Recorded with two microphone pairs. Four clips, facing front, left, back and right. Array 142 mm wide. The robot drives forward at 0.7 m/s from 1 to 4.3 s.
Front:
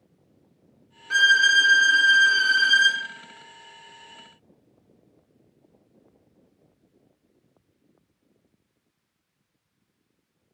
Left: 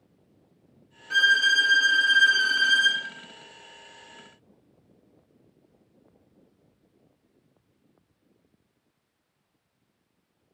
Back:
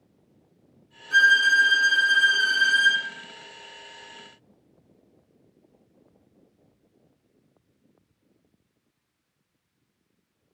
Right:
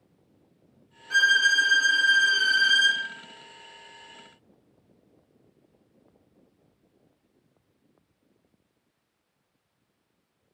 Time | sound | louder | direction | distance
1.1 | a violin | even, even | 25° left | 1.8 m